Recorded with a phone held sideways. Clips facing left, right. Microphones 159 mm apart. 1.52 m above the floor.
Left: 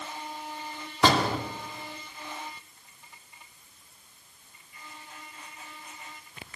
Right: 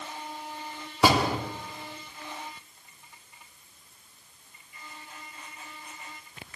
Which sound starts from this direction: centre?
A door slam, at 1.0 s.